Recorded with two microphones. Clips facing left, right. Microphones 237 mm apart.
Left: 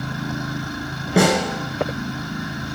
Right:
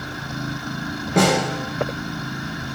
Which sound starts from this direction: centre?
A snare drum, at 1.2 s.